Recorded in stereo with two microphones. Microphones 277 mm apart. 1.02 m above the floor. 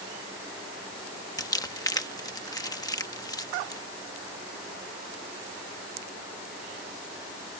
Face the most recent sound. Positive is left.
turn(degrees=15)  # may be behind; listen again after turning